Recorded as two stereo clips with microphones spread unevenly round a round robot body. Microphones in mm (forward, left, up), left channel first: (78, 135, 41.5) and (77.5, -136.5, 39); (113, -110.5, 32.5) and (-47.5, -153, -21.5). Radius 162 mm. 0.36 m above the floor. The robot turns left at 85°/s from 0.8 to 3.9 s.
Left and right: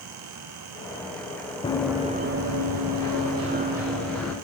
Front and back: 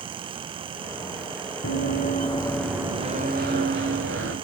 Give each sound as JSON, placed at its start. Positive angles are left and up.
{"t": 1.6, "sound": "running footsteps", "azimuth_deg": 20, "distance_m": 1.9}